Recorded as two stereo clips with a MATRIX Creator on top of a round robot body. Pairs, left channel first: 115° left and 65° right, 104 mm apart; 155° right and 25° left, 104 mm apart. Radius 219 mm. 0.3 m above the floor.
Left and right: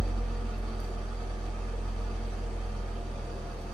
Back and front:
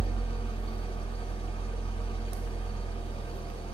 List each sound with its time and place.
0.0 s an engine running: 165° right, 1.7 m